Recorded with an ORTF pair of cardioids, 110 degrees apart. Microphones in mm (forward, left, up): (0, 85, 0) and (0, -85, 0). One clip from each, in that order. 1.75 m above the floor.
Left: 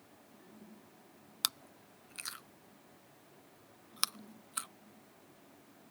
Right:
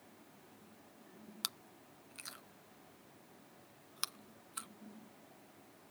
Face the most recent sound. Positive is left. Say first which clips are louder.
# left 7 dB
turn(degrees=30)